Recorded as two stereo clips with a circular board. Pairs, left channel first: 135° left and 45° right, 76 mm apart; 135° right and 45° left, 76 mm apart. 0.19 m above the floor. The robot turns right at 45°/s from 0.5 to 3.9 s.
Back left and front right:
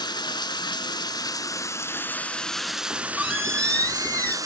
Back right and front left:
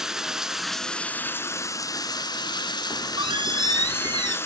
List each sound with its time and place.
0.0 s running water: 125° left, 0.8 m; by 4.5 s 80° right, 0.8 m
2.9 s a squeak: 25° left, 1.4 m; by 4.4 s 70° left, 1.4 m